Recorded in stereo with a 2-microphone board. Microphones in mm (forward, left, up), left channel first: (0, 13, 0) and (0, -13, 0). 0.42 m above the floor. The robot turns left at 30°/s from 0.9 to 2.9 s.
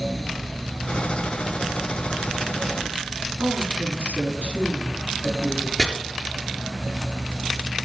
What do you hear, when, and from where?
3.4 s a woman speaking: 75° right (ahead or behind), 7 m
5.8 s chopping: 20° left (ahead or behind), 4 m